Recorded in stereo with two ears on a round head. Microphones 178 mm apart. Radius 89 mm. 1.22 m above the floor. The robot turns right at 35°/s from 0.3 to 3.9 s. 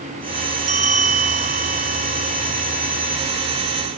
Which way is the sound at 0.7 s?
110° right.